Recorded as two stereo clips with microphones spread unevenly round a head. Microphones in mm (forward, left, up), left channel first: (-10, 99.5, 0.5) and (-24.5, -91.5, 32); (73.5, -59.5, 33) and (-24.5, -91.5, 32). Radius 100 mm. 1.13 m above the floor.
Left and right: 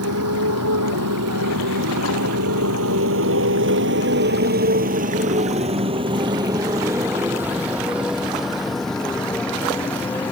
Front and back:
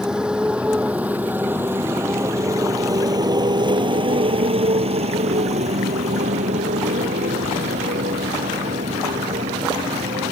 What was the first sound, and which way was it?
A motorcycle, 80° right.